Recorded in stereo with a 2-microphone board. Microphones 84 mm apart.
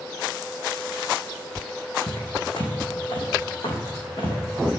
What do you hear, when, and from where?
2.1 s footsteps: 70° left (ahead or behind), 2.0 m; by 4.4 s 75° left (ahead or behind), 3 m